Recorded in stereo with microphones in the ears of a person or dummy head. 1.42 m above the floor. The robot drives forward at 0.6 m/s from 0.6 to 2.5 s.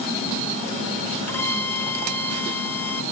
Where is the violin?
10° left (ahead or behind); by 3.0 s 5° left (ahead or behind).